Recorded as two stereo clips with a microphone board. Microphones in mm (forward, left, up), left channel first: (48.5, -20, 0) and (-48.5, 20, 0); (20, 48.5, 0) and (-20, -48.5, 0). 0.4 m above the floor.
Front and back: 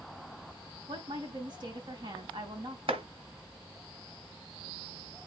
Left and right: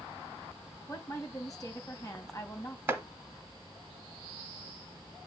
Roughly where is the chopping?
Behind.